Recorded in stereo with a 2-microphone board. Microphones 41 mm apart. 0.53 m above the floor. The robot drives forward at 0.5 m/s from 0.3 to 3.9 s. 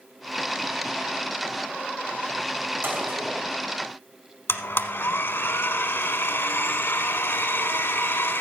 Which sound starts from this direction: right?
A gunshot, at 2.8 s.